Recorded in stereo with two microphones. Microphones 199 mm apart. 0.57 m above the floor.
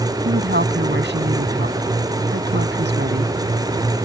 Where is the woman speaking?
65° right (ahead or behind).